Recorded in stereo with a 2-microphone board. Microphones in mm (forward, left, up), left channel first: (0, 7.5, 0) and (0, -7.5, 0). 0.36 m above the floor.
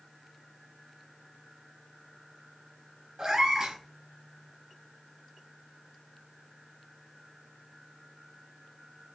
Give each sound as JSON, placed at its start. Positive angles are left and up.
{"t": 3.2, "sound": "a cat meowing", "side_deg": -45, "distance_m": 2.5}